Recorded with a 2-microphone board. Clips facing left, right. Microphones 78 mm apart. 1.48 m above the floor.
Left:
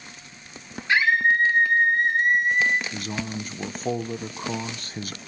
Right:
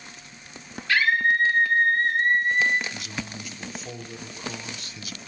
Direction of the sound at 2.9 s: 45° left (ahead or behind).